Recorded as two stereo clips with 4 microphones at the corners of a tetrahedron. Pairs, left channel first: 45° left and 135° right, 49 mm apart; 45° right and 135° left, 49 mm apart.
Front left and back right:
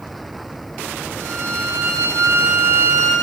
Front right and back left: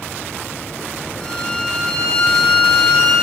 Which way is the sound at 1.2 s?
125° right.